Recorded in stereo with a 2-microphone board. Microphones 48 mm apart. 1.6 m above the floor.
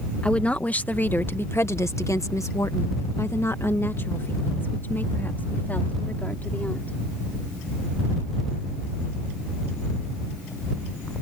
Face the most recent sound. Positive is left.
turn(degrees=35)  # may be behind; listen again after turning